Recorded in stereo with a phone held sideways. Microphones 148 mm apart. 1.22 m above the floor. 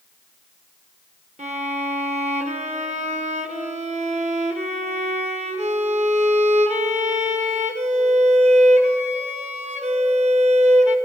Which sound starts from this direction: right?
A violin, at 1.4 s.